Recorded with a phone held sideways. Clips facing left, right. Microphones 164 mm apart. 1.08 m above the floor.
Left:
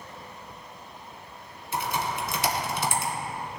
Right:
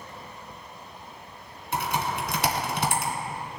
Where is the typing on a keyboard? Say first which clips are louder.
Right 1 dB; 60° right (ahead or behind), 1.8 m.